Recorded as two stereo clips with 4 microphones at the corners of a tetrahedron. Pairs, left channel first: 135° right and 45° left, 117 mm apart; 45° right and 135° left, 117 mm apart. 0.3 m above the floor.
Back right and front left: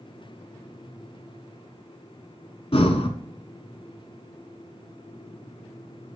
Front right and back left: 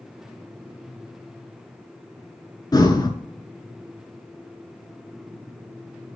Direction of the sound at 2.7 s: 100° right.